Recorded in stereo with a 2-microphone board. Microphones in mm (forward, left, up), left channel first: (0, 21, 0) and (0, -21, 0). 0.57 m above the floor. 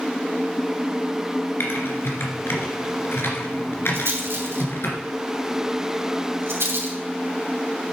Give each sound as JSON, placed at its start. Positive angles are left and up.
{"t": 1.6, "sound": "typing on a keyboard", "side_deg": 65, "distance_m": 2.0}
{"t": 3.9, "sound": "a rattle", "side_deg": -75, "distance_m": 2.5}